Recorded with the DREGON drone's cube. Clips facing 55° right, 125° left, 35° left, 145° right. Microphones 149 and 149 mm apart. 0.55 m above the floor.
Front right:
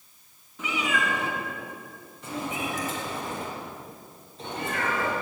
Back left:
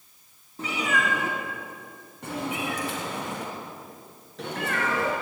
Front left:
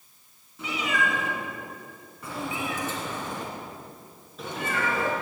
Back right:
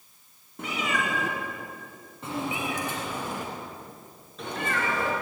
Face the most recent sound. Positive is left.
turn(degrees=115)